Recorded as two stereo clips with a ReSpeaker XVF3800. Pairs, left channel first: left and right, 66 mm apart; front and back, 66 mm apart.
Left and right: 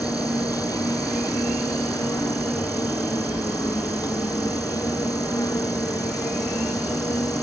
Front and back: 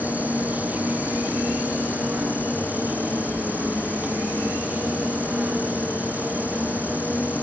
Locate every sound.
0.0 s an insect: 110° left